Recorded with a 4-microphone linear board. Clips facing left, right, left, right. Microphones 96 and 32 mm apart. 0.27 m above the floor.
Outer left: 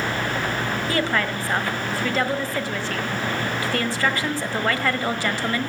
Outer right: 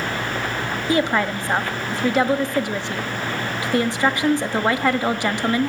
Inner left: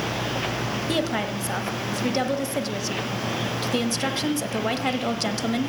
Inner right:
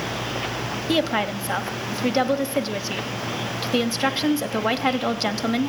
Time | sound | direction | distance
0.9 | a woman speaking | 20° right (ahead or behind) | 1.2 m